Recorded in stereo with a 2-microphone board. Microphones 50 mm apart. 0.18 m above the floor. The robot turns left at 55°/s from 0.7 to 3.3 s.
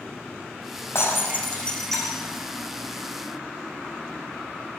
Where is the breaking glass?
50° left, 5 m; by 2.4 s 30° right, 5 m.